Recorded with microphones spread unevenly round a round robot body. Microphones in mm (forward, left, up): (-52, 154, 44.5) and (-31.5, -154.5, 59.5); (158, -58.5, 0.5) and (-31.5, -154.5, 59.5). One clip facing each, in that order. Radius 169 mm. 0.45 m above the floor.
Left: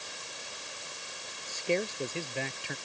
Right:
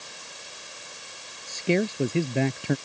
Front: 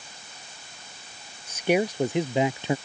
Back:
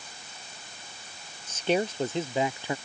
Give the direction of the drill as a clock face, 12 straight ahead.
No drill in this recording.